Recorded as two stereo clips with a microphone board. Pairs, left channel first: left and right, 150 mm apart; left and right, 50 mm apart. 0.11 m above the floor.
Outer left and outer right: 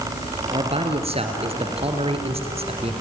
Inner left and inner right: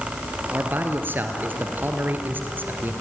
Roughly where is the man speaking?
Right.